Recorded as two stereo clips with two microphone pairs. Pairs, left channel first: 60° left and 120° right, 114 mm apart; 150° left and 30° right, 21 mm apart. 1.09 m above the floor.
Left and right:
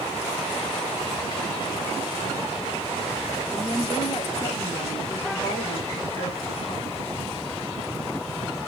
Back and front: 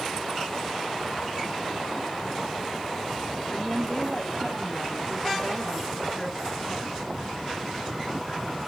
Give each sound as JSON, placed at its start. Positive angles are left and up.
{"t": 3.5, "sound": "a woman speaking", "azimuth_deg": 110, "distance_m": 1.3}